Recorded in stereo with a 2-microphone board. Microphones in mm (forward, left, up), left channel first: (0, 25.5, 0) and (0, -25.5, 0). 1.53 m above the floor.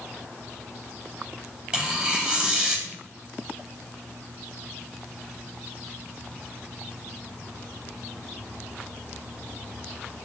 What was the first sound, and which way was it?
Tearing paper, 25° right (ahead or behind).